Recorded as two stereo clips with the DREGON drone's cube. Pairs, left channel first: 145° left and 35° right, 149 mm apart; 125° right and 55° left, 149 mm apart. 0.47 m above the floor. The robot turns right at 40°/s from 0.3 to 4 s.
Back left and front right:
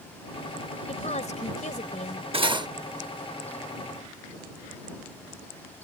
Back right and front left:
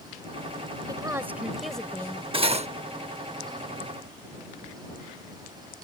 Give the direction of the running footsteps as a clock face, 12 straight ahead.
I don't hear running footsteps.